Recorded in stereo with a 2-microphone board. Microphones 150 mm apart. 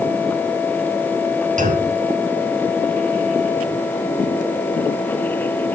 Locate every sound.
1.6 s a clunk: 60° right (ahead or behind), 1.4 m